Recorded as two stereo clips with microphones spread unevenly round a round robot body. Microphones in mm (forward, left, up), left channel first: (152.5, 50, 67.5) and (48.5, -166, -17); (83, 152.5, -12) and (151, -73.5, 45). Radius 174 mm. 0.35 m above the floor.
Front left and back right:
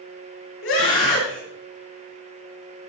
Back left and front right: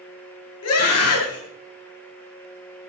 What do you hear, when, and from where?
0.6 s a scream: 120° left, 6.5 m